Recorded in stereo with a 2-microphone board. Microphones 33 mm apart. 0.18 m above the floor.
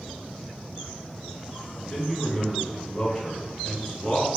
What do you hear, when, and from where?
1.8 s a man speaking: 10° left (ahead or behind), 1.5 m